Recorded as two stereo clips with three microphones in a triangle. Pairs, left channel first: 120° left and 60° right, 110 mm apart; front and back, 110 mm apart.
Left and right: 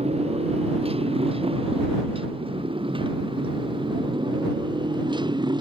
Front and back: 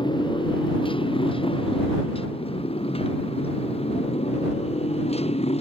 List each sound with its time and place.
0.0 s a motorcycle: 40° right; by 5.6 s 15° right